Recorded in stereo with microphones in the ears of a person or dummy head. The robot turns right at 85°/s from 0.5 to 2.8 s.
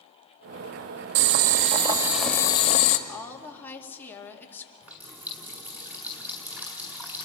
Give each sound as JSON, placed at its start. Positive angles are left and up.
{"t": 1.1, "sound": "boiling", "azimuth_deg": -90, "distance_m": 1.3}
{"t": 3.1, "sound": "a woman speaking", "side_deg": 10, "distance_m": 2.0}
{"t": 4.8, "sound": "a running tap", "side_deg": -5, "distance_m": 2.0}